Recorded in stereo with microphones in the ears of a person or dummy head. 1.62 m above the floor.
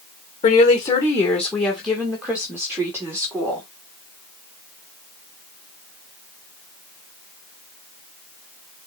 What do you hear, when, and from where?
0.4 s a woman speaking: 35° left (ahead or behind), 1.7 m; by 3.7 s 15° right (ahead or behind), 5 m